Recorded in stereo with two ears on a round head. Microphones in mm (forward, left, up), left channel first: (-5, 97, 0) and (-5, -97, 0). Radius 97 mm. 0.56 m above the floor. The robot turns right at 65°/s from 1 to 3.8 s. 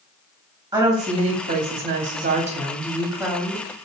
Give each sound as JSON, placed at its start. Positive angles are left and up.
{"t": 0.7, "sound": "a woman speaking", "azimuth_deg": -150, "distance_m": 0.9}